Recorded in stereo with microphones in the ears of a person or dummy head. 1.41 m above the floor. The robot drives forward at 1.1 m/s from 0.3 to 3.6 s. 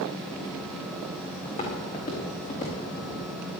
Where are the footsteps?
40° left (ahead or behind), 4 m.